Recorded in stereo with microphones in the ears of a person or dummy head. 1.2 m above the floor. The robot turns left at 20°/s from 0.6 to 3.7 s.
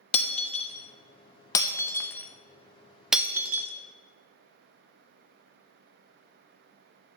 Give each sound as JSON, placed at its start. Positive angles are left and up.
{"t": 0.1, "sound": "breaking glass", "side_deg": 40, "distance_m": 0.5}